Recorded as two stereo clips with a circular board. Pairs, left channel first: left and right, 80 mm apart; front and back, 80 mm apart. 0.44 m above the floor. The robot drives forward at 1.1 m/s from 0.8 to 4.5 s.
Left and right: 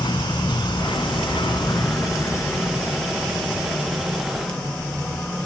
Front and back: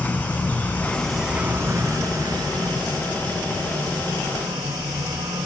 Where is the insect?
70° left, 1.0 m; by 5.5 s 165° left, 4 m.